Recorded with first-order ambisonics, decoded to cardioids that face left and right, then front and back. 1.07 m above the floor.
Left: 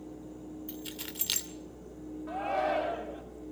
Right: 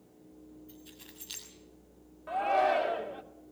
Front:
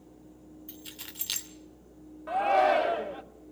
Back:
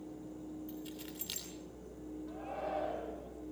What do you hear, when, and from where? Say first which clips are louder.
0.7 s keys jangling: left 11 dB, front 1 dB; 60° left, 2.5 m
2.3 s a shout: right 4 dB, front 18 dB; 10° right, 2 m